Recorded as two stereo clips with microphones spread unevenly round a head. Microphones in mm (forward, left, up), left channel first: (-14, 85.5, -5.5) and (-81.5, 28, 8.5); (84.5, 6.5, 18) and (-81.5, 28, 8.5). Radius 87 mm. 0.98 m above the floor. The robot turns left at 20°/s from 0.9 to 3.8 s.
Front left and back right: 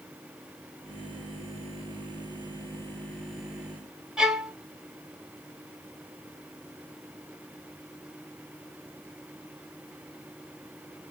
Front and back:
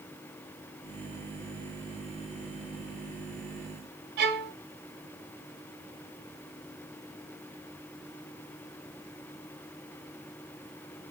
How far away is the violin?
About 0.7 m.